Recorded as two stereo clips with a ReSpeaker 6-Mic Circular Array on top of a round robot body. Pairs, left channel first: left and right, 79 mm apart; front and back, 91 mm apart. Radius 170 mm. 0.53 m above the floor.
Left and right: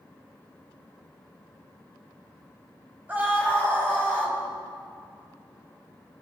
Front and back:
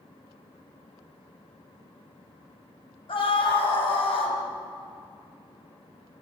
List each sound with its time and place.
3.1 s a scream: 20° right, 3.5 m